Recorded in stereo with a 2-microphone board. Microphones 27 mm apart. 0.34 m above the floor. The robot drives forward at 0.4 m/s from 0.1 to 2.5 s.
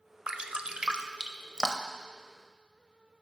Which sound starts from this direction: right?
Dripping, at 0.3 s.